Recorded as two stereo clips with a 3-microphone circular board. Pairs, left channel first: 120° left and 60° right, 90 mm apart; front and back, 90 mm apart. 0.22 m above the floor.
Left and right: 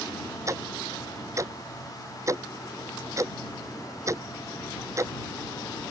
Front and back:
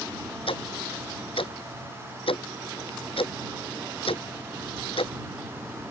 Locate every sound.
0.5 s ticking: 5° right